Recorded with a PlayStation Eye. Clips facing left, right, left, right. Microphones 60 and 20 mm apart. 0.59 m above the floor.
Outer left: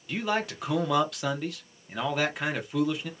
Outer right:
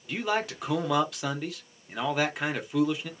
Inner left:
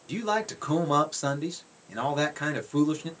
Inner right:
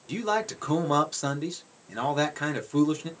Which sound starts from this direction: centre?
A man speaking, at 0.1 s.